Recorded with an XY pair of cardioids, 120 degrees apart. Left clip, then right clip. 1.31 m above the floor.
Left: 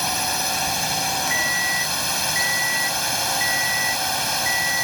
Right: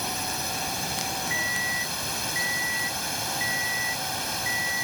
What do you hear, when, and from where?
0.0 s a drone: 45° left
1.3 s an alarm clock: 30° left